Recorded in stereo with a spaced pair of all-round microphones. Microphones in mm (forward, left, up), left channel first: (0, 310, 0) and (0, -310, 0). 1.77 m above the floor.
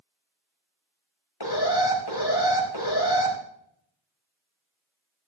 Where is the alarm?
35° left (ahead or behind), 4.5 m.